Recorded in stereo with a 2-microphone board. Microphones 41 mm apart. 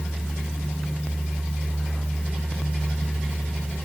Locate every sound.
Only background noise.